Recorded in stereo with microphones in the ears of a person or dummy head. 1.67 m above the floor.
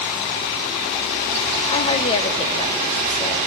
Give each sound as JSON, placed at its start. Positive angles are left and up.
{"t": 1.7, "sound": "a woman speaking", "side_deg": 35, "distance_m": 1.0}